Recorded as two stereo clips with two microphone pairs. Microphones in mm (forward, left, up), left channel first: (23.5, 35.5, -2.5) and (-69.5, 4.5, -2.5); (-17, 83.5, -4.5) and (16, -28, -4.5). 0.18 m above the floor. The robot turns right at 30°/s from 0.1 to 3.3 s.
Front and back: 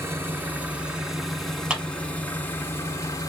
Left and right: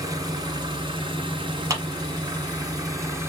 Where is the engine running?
110° right, 0.9 m; by 3.3 s 15° right, 0.9 m.